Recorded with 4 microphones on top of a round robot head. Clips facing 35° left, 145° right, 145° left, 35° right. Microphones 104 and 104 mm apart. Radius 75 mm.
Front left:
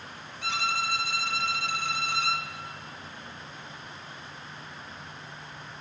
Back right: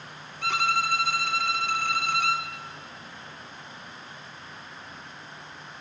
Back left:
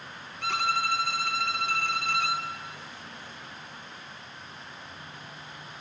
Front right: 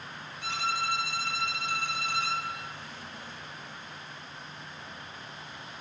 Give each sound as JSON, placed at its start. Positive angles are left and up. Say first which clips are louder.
{"t": 0.4, "sound": "a violin", "louder": "back right 4 dB, back left 4 dB", "azimuth_deg": 175, "distance_m": 1.9}